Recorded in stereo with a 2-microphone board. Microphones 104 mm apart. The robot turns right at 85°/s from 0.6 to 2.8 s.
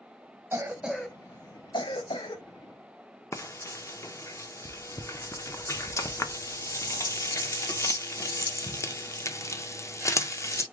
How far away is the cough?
About 1.0 m.